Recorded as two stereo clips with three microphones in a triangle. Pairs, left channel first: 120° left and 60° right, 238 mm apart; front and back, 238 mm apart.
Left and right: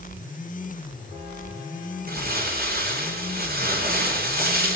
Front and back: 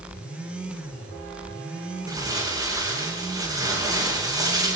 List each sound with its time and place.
2.1 s crumpling: 105° right, 9.5 m